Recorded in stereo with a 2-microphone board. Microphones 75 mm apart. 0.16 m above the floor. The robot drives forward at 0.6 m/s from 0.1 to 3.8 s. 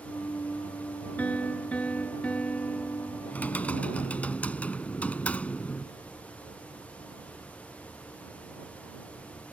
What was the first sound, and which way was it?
A piano, 20° left (ahead or behind).